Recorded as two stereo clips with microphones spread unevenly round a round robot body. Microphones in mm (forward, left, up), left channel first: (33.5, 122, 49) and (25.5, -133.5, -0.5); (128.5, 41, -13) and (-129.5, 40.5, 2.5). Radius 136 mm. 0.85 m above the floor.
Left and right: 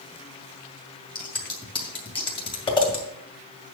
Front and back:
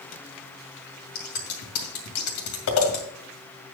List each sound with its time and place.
1.1 s scissors: 15° left, 2.5 m